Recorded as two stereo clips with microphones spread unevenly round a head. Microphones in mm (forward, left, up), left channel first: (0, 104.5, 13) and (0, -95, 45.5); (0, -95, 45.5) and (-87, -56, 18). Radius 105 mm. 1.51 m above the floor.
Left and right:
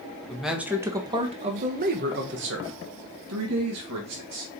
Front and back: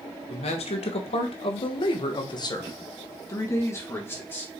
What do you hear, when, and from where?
0.3 s a man speaking: straight ahead, 1.3 m; by 4.6 s 90° right, 2 m